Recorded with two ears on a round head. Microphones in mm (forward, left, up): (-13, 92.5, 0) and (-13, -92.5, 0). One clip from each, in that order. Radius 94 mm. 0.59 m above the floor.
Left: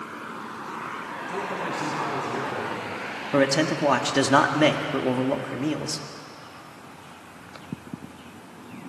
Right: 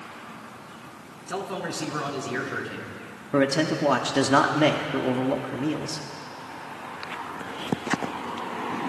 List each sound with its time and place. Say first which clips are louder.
1.3 s a man speaking: even; 75° right (ahead or behind), 5.5 m; by 3.0 s 60° right (ahead or behind), 5.5 m
3.3 s a man speaking: left 1 dB; 15° left (ahead or behind), 1.3 m